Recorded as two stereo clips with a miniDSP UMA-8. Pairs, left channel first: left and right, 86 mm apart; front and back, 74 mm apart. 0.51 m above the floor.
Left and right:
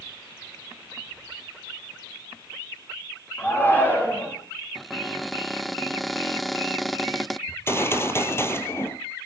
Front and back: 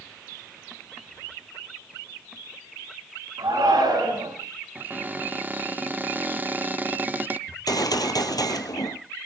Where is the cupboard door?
Straight behind, 0.6 m.